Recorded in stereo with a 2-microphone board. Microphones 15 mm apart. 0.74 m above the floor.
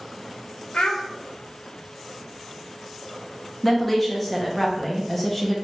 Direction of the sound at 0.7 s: 80° left.